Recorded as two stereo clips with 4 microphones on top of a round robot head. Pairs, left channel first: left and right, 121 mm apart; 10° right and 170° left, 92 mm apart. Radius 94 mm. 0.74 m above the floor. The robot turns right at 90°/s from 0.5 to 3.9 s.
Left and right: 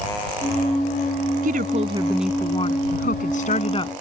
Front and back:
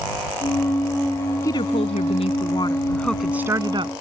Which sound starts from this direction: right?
A woman speaking, at 1.4 s.